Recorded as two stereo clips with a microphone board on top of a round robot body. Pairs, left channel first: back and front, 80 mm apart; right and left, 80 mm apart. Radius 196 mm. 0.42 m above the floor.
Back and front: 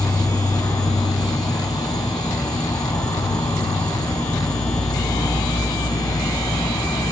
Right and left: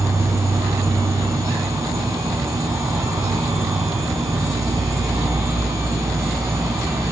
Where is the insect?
140° left, 0.9 m.